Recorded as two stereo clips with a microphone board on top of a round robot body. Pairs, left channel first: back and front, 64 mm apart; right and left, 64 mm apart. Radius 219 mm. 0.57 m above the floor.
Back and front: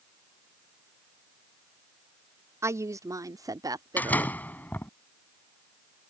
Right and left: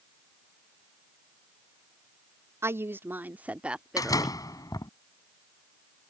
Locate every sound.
2.6 s a woman speaking: 40° left; by 4.4 s straight ahead
4.0 s a door slam: 115° right